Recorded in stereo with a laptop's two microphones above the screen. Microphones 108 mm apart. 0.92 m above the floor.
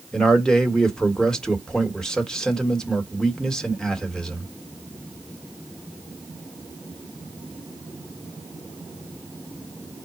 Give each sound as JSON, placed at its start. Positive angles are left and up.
{"t": 0.1, "sound": "a man speaking", "side_deg": 5, "distance_m": 1.3}